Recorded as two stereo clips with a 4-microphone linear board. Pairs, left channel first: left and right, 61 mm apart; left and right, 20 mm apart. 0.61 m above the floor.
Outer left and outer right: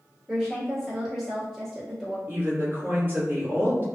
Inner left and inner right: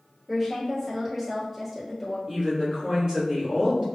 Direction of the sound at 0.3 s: 5° right (ahead or behind).